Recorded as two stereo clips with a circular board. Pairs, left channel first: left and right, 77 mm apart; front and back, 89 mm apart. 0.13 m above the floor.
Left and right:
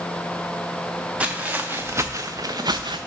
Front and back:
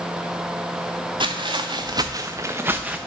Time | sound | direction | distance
1.2 | footsteps | 165° right | 1.0 m